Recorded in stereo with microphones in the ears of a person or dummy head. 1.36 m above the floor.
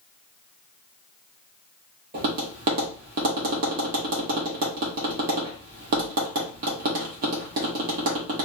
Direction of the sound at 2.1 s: 40° right (ahead or behind).